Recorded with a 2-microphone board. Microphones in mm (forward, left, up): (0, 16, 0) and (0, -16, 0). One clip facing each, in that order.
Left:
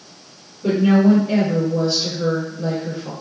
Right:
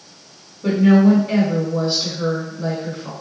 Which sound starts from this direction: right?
A woman speaking, at 0.6 s.